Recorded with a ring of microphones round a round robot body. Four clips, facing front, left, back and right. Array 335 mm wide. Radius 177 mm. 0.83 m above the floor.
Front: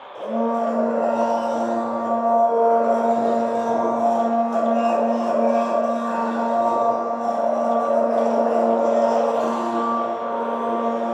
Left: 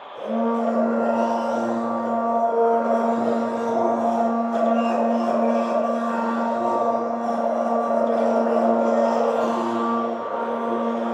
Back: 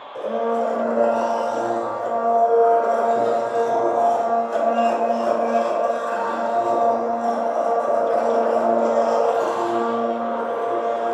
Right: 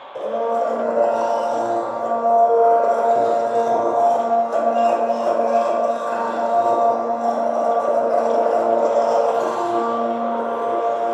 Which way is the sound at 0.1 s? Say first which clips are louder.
Right 2 dB, even; 105° right.